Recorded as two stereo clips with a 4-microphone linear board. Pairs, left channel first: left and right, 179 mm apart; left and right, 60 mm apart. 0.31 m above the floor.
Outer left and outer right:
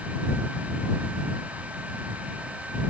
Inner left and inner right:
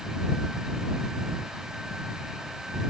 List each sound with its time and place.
Only background noise.